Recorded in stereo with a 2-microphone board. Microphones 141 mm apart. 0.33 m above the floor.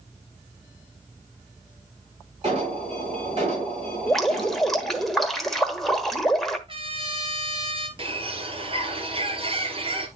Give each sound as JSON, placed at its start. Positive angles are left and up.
{"t": 2.4, "sound": "an alarm", "side_deg": -45, "distance_m": 6.0}
{"t": 4.1, "sound": "dripping", "side_deg": 0, "distance_m": 1.3}
{"t": 6.7, "sound": "a trumpet", "side_deg": -40, "distance_m": 1.4}
{"t": 8.0, "sound": "a bird", "side_deg": -40, "distance_m": 1.4}